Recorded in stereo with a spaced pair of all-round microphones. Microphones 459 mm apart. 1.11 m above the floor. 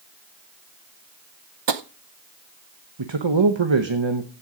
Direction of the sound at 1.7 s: 65° right (ahead or behind).